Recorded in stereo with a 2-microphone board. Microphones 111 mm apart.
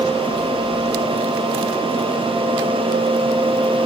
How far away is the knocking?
No knocking in this recording.